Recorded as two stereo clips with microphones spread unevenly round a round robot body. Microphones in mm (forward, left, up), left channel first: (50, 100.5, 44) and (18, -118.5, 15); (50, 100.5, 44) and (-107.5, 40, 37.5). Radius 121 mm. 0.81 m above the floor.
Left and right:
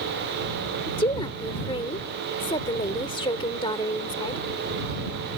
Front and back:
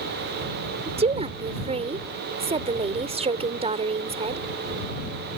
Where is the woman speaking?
150° left.